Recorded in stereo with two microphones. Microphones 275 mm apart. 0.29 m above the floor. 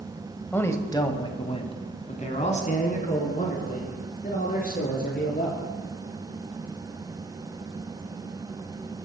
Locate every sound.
0.5 s a man speaking: 5° left (ahead or behind), 1.1 m; by 5.6 s 30° left (ahead or behind), 4.5 m